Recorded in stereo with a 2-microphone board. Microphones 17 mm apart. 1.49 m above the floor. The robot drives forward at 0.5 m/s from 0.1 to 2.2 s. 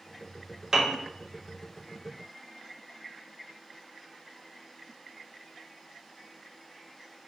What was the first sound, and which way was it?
A piano, 40° right (ahead or behind).